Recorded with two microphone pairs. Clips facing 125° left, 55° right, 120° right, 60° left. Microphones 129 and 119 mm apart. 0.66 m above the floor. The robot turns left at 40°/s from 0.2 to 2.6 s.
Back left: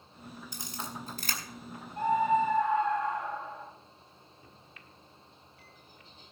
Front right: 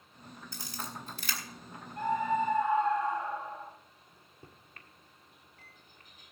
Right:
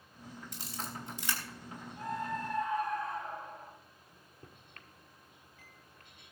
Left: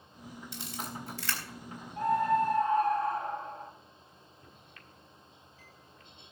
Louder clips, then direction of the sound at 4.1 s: Back left 1 dB, left 1 dB; 90° right.